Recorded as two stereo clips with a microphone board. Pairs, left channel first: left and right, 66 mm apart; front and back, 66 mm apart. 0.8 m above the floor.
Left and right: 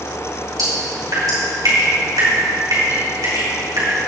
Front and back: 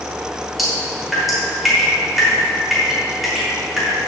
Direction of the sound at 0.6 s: 95° right.